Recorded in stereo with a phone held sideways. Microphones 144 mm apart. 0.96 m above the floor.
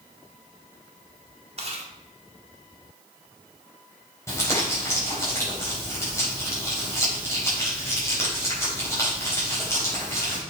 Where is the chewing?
45° right (ahead or behind), 2 m.